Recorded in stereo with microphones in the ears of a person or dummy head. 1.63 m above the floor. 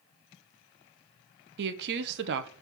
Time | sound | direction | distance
1.6 | a woman speaking | 60° right (ahead or behind) | 1.0 m